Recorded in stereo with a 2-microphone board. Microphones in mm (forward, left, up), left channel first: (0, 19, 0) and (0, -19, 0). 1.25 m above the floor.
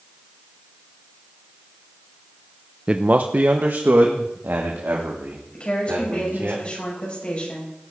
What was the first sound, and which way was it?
A man speaking, 30° right (ahead or behind).